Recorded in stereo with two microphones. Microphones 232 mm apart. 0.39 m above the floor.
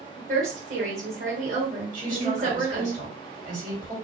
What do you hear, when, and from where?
0.2 s a woman speaking: 40° right (ahead or behind), 1.6 m
1.9 s a woman speaking: 35° right (ahead or behind), 2.0 m